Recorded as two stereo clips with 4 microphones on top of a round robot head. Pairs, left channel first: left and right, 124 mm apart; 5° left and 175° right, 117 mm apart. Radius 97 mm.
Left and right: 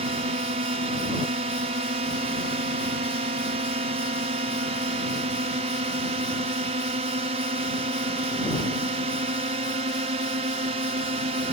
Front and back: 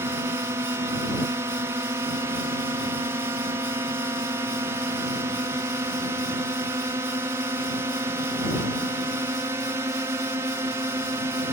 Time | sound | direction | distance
0.0 | a drone | 110° right | ?